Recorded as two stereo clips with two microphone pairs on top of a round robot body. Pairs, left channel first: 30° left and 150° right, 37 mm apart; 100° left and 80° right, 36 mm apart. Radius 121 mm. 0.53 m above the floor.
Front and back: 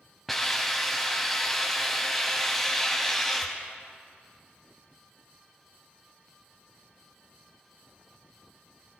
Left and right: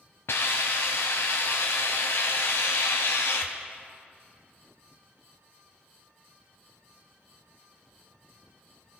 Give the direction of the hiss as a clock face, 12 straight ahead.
8 o'clock.